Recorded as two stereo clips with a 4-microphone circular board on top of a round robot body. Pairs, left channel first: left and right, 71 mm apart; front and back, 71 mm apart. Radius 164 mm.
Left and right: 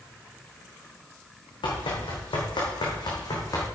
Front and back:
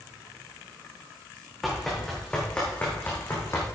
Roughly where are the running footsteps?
Left.